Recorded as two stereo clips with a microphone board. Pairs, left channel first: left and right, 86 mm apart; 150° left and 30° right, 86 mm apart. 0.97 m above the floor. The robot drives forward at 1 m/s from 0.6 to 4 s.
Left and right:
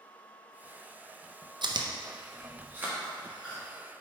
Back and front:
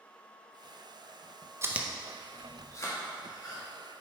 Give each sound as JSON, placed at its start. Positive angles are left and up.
{"t": 1.6, "sound": "chewing", "azimuth_deg": -85, "distance_m": 0.5}